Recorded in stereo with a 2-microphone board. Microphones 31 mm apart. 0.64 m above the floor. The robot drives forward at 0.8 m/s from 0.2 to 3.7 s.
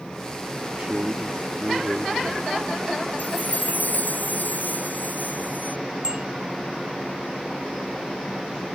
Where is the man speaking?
40° right (ahead or behind); by 2.6 s 25° right (ahead or behind).